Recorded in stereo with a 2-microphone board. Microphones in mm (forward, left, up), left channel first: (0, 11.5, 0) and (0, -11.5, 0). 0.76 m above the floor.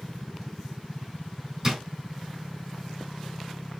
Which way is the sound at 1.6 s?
20° right (ahead or behind).